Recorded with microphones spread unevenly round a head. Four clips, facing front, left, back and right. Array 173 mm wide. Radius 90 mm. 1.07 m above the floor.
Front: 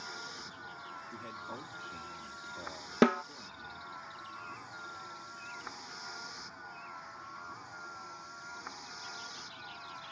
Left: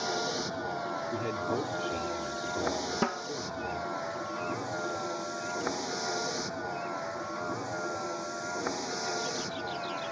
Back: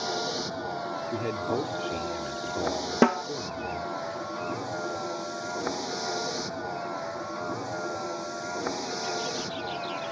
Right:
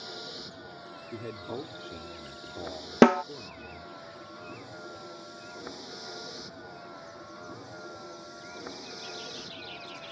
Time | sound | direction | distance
0.0 | a vehicle | 145° left | ?
1.1 | a man speaking | 165° left | ?
3.0 | a snare drum | 105° right | ?